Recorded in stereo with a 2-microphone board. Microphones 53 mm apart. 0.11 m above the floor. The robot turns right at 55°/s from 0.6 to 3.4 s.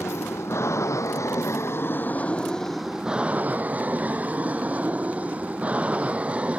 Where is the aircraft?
60° left (ahead or behind); by 6.6 s 25° right (ahead or behind).